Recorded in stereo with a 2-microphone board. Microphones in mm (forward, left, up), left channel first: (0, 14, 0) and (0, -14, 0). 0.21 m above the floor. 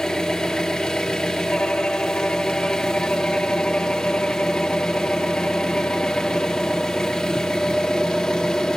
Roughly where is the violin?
Left.